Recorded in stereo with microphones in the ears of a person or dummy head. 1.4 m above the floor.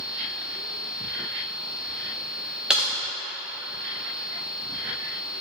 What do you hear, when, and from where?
2.7 s typing on a keyboard: 15° right (ahead or behind), 0.8 m